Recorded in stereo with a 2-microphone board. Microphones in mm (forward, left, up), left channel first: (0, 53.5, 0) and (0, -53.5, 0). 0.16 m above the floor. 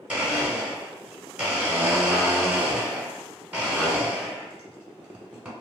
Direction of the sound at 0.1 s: 10° right (ahead or behind).